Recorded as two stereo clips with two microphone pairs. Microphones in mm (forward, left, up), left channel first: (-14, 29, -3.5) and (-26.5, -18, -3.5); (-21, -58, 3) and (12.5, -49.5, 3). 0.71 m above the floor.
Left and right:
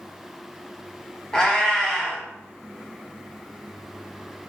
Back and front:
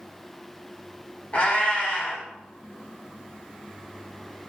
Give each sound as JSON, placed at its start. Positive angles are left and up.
{"t": 1.3, "sound": "a cat meowing", "azimuth_deg": 155, "distance_m": 0.9}